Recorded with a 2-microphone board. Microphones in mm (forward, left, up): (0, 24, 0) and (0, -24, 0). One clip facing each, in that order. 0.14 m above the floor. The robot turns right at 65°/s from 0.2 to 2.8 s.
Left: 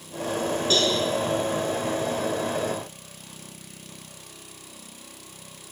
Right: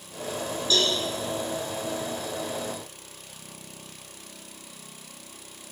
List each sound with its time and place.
0.7 s a cowbell: 45° left (ahead or behind), 1.5 m; by 0.9 s 50° left (ahead or behind), 1.5 m